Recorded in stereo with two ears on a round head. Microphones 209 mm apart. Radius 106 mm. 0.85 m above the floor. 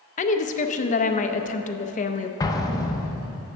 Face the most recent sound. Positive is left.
turn(degrees=15)  # may be behind; listen again after turning